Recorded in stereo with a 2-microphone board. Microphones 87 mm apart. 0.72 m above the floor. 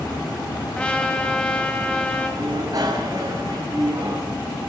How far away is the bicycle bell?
About 5 m.